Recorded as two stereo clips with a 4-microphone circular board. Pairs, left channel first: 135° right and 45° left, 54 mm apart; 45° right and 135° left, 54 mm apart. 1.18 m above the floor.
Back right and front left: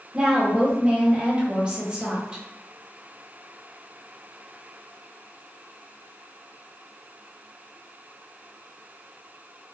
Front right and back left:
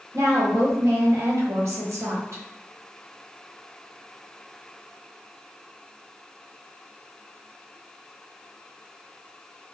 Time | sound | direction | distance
0.1 | a woman speaking | 115° left | 1.1 m